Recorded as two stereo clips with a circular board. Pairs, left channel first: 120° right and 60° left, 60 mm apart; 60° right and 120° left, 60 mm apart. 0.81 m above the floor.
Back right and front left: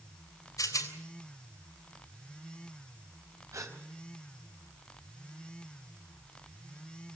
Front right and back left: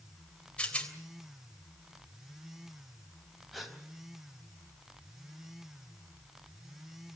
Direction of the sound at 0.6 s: 130° right.